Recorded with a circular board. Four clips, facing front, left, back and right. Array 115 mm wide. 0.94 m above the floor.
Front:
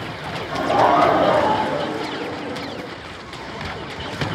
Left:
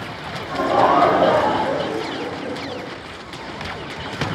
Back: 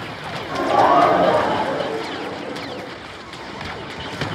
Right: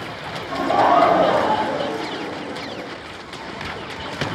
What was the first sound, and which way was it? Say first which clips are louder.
Laughter: even, back 1 dB; 145° left.